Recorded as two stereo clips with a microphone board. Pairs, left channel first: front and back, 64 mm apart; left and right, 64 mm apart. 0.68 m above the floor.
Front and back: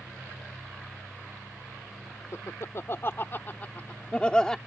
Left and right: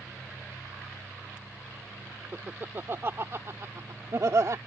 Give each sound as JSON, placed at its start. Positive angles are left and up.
{"t": 2.3, "sound": "laughter", "azimuth_deg": -35}